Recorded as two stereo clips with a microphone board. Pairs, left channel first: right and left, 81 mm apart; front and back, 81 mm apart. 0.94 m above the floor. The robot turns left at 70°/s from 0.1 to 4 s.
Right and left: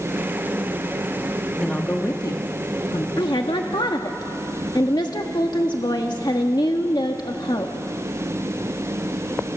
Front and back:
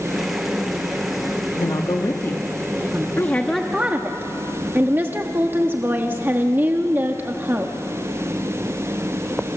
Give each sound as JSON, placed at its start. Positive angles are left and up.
{"t": 1.6, "sound": "a woman speaking", "azimuth_deg": -5, "distance_m": 1.5}
{"t": 3.2, "sound": "a woman speaking", "azimuth_deg": -60, "distance_m": 1.2}